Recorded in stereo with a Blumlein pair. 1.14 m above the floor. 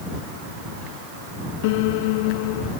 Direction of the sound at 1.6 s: 50° left.